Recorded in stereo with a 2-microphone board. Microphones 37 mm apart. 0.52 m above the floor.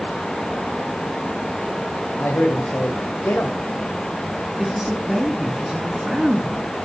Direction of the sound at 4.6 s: 5° right (ahead or behind).